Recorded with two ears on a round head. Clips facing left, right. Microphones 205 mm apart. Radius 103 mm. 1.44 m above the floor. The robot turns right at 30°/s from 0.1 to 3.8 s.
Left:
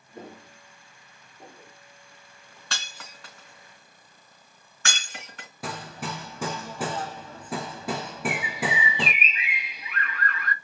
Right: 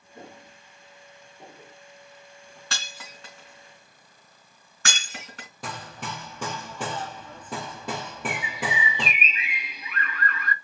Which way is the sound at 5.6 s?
5° left (ahead or behind).